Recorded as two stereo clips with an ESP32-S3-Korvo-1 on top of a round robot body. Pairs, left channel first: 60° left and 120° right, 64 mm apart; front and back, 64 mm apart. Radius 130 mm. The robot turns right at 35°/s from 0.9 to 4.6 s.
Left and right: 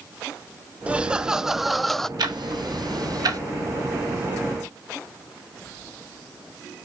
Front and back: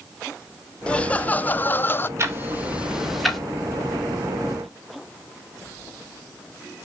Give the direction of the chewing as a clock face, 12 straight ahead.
No chewing in this recording.